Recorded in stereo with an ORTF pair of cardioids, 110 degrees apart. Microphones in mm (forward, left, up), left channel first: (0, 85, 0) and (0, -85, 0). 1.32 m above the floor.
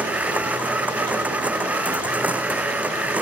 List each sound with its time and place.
0.0 s a machine running: 10° right